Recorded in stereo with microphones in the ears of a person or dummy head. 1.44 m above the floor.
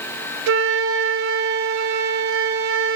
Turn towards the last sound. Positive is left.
turn(degrees=-65)  # may be behind; listen again after turning